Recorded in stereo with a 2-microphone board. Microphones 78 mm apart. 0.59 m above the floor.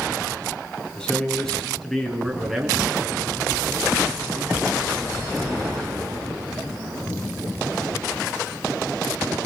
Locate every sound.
0.9 s a man speaking: 10° left (ahead or behind), 5.5 m; by 4.8 s 25° right (ahead or behind), 8.5 m